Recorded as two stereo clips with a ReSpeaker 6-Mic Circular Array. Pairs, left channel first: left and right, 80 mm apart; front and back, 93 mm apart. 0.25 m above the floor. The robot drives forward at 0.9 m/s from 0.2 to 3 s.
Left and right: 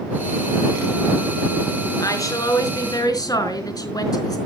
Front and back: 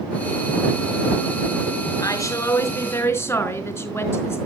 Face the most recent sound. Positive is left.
turn(degrees=60)